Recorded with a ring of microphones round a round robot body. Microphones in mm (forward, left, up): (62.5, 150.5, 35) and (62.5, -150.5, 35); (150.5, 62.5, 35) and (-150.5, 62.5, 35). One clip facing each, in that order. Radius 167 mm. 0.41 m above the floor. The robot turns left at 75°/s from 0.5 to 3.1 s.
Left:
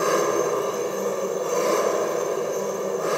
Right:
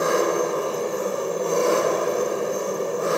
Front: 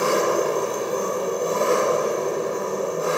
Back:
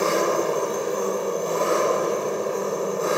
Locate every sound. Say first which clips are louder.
0.0 s an engine running: even, front 1 dB; 35° left, 1.8 m; by 3.2 s 160° right, 1.8 m